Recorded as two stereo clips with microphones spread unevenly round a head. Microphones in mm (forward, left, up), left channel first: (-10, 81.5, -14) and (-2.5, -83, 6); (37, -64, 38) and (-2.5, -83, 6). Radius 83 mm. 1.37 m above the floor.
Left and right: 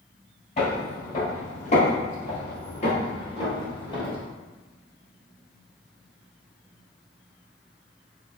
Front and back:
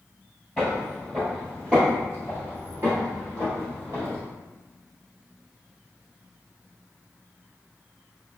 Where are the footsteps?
55° left, 1.9 m; by 4.2 s 150° left, 1.7 m.